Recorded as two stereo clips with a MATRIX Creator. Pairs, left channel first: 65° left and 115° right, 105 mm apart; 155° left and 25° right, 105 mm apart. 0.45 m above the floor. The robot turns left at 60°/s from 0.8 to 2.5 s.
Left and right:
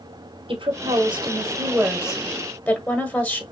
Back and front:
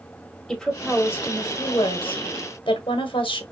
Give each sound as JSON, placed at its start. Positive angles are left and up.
{"t": 0.5, "sound": "a woman speaking", "azimuth_deg": -115, "distance_m": 1.3}